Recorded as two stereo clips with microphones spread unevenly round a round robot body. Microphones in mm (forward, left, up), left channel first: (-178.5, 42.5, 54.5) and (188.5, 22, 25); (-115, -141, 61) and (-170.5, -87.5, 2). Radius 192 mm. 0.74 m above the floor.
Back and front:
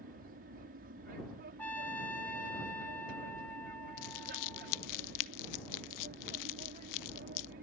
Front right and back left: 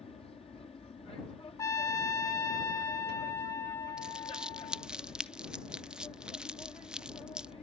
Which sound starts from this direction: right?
A trumpet, at 1.6 s.